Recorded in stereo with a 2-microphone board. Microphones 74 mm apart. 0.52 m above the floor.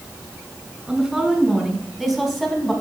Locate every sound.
0.9 s a woman speaking: 5° right (ahead or behind), 2.5 m; by 2.7 s 10° left (ahead or behind), 3.5 m